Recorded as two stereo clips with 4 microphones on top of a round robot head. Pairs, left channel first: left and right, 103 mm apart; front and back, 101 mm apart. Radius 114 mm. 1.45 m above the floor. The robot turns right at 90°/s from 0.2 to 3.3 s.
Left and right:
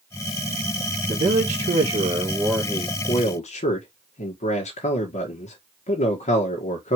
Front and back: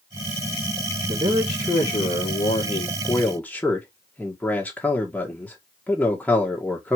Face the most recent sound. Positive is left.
turn(degrees=75)